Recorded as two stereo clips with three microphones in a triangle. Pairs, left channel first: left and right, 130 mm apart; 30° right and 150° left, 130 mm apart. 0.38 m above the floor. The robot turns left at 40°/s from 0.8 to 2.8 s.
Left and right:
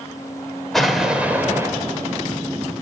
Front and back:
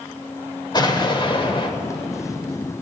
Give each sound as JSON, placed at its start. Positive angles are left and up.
{"t": 0.7, "sound": "an explosion", "azimuth_deg": 0, "distance_m": 1.3}